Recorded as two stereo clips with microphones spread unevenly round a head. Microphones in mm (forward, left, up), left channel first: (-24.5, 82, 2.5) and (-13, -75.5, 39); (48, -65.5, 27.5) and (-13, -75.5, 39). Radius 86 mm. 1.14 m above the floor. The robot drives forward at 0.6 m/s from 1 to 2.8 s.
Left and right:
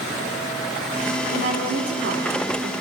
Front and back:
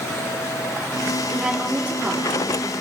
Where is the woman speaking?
90° right, 3.5 m; by 2.7 s 105° right, 3.5 m.